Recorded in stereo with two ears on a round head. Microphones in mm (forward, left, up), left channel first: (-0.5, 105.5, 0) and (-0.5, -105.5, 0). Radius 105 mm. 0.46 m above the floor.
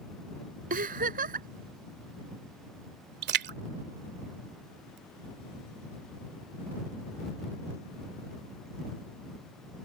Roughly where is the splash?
Right.